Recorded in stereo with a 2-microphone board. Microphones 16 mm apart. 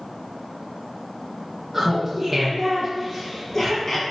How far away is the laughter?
About 3 m.